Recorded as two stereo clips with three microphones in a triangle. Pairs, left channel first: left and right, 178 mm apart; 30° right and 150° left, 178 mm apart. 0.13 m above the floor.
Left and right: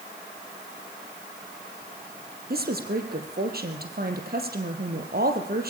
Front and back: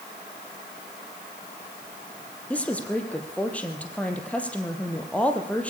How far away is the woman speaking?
About 3.5 m.